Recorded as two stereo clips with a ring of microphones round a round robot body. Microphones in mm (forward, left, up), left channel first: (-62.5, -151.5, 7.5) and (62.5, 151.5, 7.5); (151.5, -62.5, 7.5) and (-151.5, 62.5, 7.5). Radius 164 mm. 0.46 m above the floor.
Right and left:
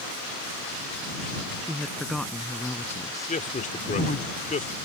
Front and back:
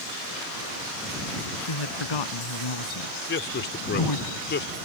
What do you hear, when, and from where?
1.6 s a woman speaking: 20° right; by 4.3 s 50° right
3.3 s a man speaking: 60° right